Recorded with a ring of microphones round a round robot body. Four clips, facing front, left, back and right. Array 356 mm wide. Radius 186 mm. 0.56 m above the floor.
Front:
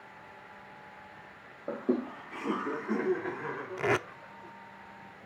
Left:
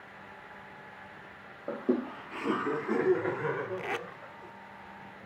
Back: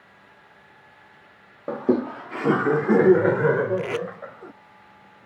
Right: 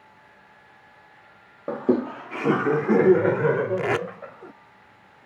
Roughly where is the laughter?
Behind right.